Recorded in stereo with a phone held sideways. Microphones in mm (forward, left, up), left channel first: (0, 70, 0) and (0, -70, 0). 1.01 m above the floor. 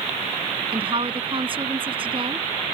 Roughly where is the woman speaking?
Right.